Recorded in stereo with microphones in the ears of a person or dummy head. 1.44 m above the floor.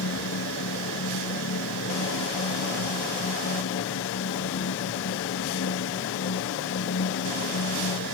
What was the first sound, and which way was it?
A fan, 70° left (ahead or behind).